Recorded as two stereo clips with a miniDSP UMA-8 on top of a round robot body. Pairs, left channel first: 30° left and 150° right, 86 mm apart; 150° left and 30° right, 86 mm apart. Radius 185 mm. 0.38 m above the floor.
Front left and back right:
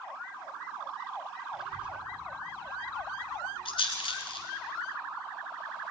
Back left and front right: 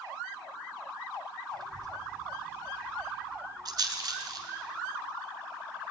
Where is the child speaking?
65° right, 2.5 m; by 4.5 s 110° right, 6 m.